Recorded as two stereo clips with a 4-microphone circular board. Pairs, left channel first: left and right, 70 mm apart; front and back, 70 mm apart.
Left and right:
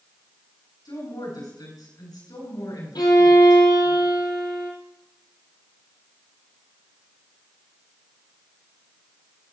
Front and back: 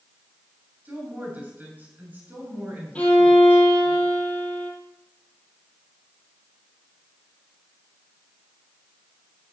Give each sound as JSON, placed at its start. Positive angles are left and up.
{"t": 0.8, "sound": "a woman speaking", "azimuth_deg": 110, "distance_m": 6.0}
{"t": 3.0, "sound": "a violin", "azimuth_deg": 75, "distance_m": 3.0}